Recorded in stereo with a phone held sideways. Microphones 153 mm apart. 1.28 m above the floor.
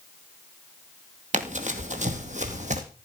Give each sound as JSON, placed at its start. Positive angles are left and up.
{"t": 1.3, "sound": "running footsteps", "side_deg": -55, "distance_m": 2.0}